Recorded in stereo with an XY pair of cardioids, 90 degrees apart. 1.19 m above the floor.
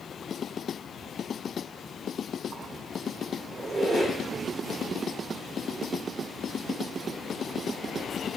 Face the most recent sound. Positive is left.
turn(degrees=-50)